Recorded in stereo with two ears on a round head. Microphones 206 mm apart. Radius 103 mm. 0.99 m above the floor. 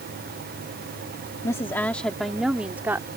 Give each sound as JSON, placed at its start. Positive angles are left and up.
{"t": 1.4, "sound": "a woman speaking", "side_deg": 15}